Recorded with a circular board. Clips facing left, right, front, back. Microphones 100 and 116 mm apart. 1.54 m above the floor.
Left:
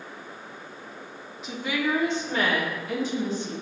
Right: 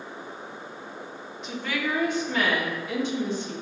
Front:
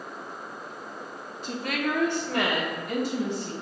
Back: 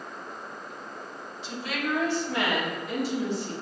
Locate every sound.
1.4 s a woman speaking: straight ahead, 0.6 m; by 3.5 s 40° left, 2 m